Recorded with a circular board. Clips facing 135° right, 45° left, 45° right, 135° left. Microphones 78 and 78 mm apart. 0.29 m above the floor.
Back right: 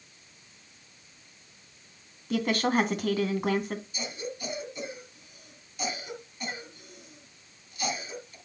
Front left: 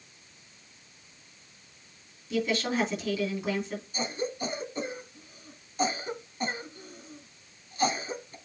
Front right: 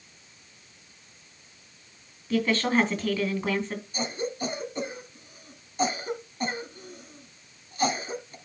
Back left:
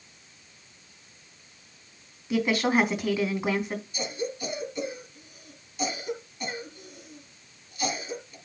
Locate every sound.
2.3 s a woman speaking: 150° right, 2.5 m
3.9 s a cough: straight ahead, 2 m